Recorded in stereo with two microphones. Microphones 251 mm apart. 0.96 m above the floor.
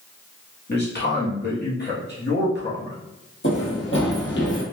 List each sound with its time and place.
0.7 s a man speaking: 40° left (ahead or behind), 1.4 m
3.4 s running footsteps: 55° left (ahead or behind), 1.5 m; by 4.6 s 45° left (ahead or behind), 1.5 m